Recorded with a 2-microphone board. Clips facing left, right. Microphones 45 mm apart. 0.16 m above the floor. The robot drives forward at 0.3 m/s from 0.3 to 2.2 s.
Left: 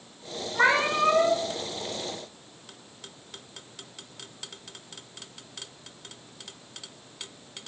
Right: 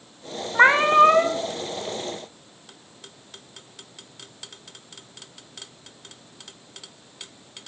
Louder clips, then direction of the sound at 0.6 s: Right 8 dB; 35° right (ahead or behind).